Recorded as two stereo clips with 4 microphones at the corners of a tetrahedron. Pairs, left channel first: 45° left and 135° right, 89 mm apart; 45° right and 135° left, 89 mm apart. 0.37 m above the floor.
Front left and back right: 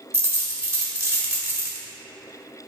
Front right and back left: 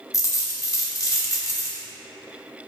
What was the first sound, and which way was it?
A dropped coin, 80° right.